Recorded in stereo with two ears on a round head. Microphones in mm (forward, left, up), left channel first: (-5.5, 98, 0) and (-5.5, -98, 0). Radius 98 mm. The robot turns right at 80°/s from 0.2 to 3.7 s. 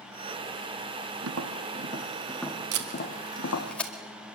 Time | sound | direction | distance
1.2 | tapping | 70° right (ahead or behind) | 2 m
2.7 | tape being pulled | 65° right (ahead or behind) | 2 m